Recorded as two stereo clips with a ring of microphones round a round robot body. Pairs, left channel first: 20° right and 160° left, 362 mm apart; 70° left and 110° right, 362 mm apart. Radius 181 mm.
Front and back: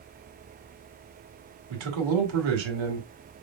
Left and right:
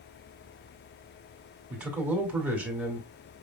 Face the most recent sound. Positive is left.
turn(degrees=160)